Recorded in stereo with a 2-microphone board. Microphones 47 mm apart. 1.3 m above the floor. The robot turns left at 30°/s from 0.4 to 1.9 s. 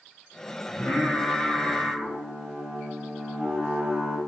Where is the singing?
20° left, 5 m; by 4.2 s 15° right, 5 m.